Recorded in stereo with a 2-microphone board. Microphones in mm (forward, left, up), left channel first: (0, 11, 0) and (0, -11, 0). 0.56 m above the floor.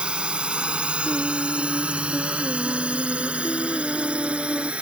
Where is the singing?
55° right (ahead or behind).